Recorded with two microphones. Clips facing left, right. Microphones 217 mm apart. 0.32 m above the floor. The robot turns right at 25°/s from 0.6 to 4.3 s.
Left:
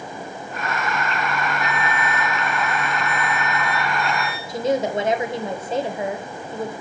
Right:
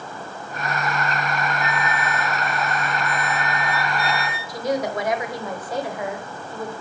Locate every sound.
1.6 s a flute: 100° right, 3 m; by 4.4 s 35° right, 3 m
4.5 s a woman speaking: 25° left (ahead or behind), 1.1 m